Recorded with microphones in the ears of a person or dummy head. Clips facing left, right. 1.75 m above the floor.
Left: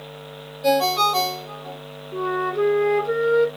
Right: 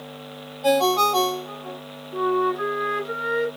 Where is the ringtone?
20° left (ahead or behind), 1.9 m.